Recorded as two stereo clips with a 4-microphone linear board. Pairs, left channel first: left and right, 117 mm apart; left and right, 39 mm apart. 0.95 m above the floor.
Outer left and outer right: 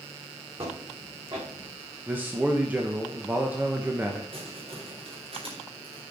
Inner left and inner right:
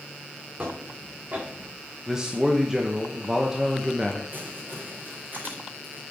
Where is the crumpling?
55° right (ahead or behind), 3.5 m.